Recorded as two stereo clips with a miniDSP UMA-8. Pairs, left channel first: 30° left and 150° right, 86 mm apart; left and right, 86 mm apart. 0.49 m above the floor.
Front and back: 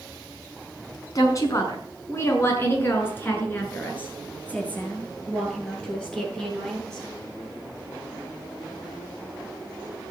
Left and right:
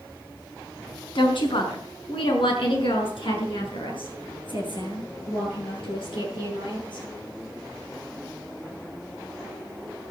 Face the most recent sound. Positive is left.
turn(degrees=115)